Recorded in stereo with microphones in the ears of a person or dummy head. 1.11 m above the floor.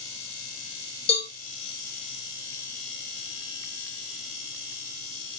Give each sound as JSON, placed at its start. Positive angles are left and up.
{"t": 1.1, "sound": "a cowbell", "side_deg": 30, "distance_m": 1.8}